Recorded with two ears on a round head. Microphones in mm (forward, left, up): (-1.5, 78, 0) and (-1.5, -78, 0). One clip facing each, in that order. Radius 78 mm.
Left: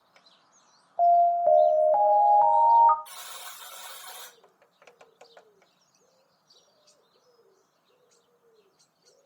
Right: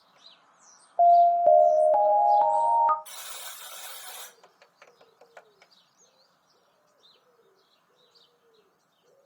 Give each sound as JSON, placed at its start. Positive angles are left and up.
{"t": 1.0, "sound": "an alarm", "side_deg": -35, "distance_m": 0.5}
{"t": 3.0, "sound": "a buzzer", "side_deg": -30, "distance_m": 2.0}